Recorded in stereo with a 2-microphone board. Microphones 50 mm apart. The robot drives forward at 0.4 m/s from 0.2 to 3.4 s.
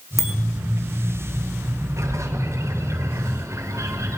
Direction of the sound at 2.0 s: 70° right (ahead or behind).